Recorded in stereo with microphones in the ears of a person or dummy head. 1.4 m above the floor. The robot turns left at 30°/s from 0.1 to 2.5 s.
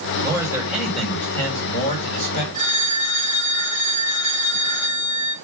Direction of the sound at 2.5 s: 25° left (ahead or behind).